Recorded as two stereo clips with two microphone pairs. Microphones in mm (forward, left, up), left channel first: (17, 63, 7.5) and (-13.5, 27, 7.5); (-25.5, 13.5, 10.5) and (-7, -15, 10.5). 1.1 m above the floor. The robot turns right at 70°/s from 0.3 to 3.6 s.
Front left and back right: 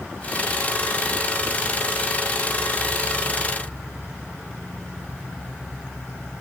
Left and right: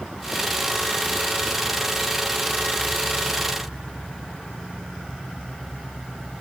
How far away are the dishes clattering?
No dishes clattering in this recording.